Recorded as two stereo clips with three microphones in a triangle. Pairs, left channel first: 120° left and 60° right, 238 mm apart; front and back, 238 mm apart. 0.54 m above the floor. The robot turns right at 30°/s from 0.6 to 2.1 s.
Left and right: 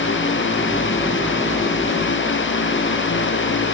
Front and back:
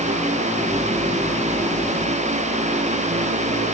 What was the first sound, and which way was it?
Only background noise.